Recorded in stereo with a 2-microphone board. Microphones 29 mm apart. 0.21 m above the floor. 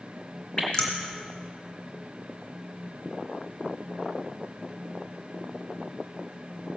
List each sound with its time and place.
0.6 s dripping: 35° left (ahead or behind), 2.5 m